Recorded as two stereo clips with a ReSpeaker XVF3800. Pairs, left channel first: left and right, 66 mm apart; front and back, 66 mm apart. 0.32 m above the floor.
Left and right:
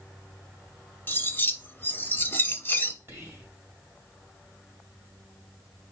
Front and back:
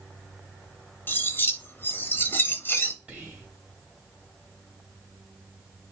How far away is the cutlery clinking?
About 0.6 m.